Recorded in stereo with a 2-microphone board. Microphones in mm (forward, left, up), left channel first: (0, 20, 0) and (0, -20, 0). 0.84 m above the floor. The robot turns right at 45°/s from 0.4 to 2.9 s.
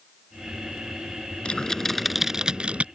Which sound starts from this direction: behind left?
Typing on a keyboard, at 1.4 s.